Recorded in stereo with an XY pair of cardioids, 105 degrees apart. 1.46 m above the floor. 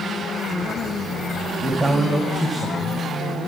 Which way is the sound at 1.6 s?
5° right.